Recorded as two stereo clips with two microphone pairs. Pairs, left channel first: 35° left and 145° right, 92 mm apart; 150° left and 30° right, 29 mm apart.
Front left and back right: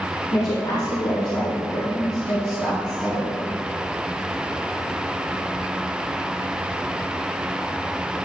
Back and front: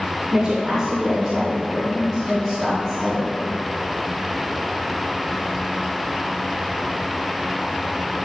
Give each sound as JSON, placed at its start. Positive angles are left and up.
{"t": 0.3, "sound": "a woman speaking", "azimuth_deg": 35, "distance_m": 1.5}